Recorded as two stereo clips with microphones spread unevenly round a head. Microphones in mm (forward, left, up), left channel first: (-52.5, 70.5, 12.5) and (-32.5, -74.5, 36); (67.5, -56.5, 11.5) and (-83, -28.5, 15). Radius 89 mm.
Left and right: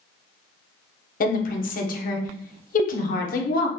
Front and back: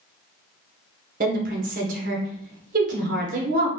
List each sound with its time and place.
1.2 s a woman speaking: 120° left, 0.8 m